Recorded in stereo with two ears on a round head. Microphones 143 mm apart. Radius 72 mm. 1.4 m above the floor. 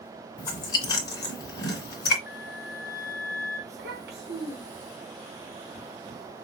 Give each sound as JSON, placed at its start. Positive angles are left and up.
{"t": 0.4, "sound": "chewing", "side_deg": 25, "distance_m": 2.5}
{"t": 2.3, "sound": "a flute", "side_deg": 55, "distance_m": 2.5}
{"t": 3.7, "sound": "a child speaking", "side_deg": -80, "distance_m": 3.5}